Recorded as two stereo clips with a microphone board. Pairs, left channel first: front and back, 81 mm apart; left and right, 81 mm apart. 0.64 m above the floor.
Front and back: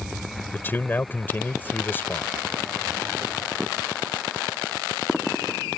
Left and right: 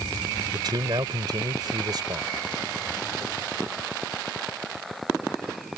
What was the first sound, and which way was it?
A man speaking, 65° right.